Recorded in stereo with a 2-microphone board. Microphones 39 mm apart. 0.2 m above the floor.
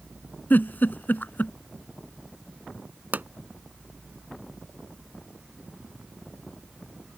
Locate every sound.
0.5 s a giggle: 55° left (ahead or behind)
3.1 s a pop: 50° right (ahead or behind)